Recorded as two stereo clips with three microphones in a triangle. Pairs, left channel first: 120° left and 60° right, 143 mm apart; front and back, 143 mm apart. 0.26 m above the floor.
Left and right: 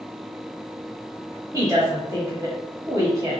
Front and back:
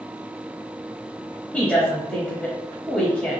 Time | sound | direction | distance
1.5 | a woman speaking | 70° right | 1.0 m